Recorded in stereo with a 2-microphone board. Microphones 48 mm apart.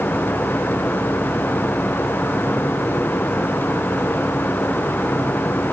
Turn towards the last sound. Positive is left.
No sound to turn to.